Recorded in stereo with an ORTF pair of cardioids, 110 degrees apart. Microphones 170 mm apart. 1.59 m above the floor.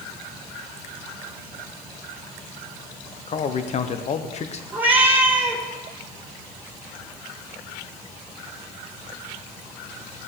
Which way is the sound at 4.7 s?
10° right.